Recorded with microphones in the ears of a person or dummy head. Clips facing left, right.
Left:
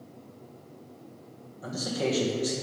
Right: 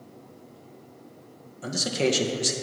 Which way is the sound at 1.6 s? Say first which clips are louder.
Right 4 dB; 35° right (ahead or behind).